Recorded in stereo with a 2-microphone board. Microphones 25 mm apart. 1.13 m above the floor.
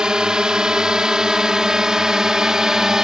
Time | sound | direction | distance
0.0 | a drone | 30° right (ahead or behind) | ?